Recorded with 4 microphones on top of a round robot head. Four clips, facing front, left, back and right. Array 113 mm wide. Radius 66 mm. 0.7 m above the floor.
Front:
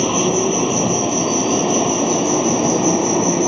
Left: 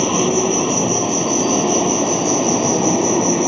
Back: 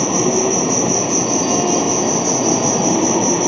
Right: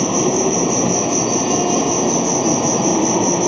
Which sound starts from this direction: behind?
An insect, at 0.0 s.